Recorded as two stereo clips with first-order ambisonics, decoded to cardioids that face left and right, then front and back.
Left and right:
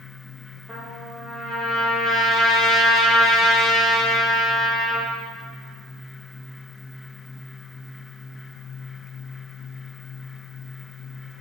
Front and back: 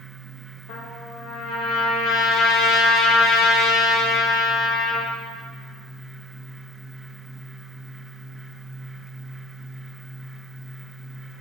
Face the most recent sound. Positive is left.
turn(degrees=-15)